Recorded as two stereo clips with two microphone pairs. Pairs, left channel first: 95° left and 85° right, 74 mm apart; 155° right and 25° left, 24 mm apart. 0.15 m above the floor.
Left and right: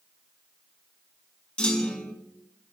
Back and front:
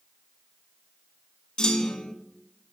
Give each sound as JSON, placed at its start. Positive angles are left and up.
{"t": 1.6, "sound": "a clunk", "azimuth_deg": 165, "distance_m": 0.5}